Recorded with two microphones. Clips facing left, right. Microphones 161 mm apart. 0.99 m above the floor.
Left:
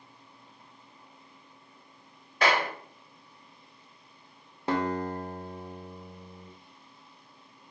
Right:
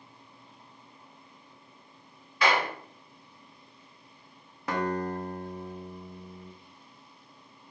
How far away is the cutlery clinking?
I don't hear cutlery clinking.